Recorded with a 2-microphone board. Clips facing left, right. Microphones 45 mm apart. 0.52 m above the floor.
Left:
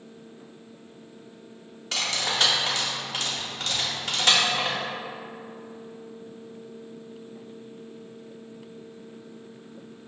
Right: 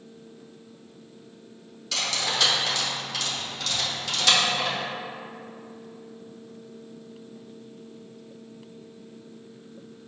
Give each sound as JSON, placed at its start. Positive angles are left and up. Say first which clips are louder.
{"t": 1.9, "sound": "cutlery clinking", "louder": "even", "side_deg": 35, "distance_m": 1.0}